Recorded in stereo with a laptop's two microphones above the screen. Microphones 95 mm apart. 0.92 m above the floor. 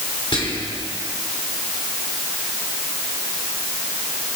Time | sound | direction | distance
0.3 | whispering | 75° left (ahead or behind) | 2.5 m